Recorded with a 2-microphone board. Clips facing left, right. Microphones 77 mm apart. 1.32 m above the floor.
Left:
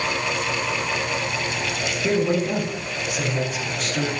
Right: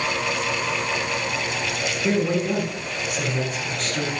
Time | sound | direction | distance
2.0 | a man speaking | 5° left (ahead or behind) | 3 m